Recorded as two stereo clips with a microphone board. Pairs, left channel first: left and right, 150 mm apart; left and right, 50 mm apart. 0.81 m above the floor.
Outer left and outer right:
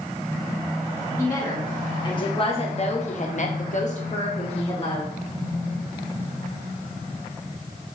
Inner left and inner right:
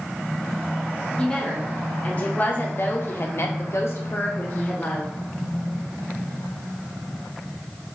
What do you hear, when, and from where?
1.2 s a woman speaking: 20° left (ahead or behind), 1.5 m; by 5.1 s 35° left (ahead or behind), 1.2 m